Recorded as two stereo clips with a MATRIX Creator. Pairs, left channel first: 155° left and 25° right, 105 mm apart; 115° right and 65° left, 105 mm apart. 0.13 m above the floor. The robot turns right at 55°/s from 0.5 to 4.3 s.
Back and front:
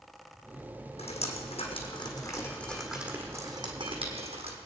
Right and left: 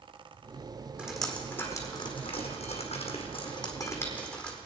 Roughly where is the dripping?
Behind left.